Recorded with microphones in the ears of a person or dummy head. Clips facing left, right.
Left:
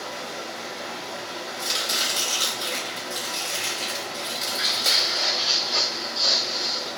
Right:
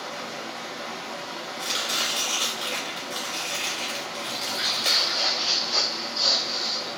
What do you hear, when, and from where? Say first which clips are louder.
0.0 s running water: left 1 dB; 5° left (ahead or behind), 1.1 m
1.6 s chopping: left 1 dB; 10° right (ahead or behind), 1.8 m
4.3 s footsteps: left 1 dB; 20° right (ahead or behind), 1.7 m; by 6.9 s 15° left (ahead or behind), 1.6 m